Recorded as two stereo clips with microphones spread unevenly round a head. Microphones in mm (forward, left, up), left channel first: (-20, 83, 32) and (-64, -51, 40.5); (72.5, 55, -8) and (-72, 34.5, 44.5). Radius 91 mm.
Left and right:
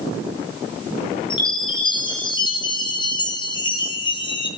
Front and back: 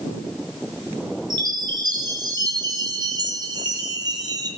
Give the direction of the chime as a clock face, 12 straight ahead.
8 o'clock.